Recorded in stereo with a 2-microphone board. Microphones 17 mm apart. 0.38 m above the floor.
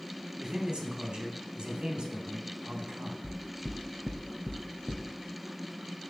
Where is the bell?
No bell in this recording.